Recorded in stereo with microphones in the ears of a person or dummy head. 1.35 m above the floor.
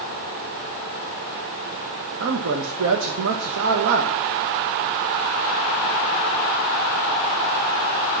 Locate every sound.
2.2 s a man speaking: 65° right (ahead or behind), 1.1 m